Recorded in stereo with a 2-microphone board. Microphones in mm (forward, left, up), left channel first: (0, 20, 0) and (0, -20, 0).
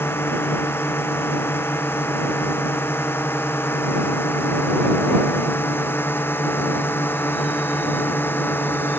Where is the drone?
75° left (ahead or behind); by 9.0 s 65° left (ahead or behind).